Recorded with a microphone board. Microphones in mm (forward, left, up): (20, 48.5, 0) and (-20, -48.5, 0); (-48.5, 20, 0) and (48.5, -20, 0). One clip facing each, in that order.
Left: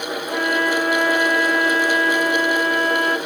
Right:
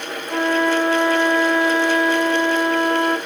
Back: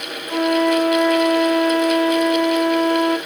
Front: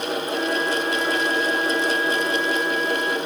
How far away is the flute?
About 0.8 m.